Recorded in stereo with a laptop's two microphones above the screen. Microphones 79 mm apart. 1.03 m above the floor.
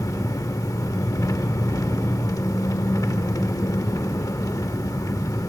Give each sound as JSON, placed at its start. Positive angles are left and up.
{"t": 0.0, "sound": "an engine running", "side_deg": 50, "distance_m": 0.9}